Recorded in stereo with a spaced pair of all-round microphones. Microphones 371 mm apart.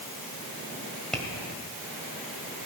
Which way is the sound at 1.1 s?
Centre (ahead or behind).